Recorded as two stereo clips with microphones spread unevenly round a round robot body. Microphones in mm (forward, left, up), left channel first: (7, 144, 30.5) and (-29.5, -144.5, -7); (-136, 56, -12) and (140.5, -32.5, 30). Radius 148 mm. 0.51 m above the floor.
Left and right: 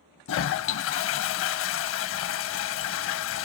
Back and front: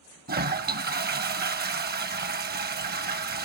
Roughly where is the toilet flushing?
Ahead left.